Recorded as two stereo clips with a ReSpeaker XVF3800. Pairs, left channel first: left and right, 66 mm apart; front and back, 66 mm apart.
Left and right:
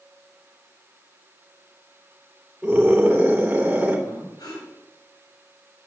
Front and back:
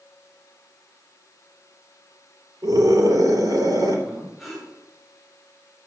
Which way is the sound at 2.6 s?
165° right.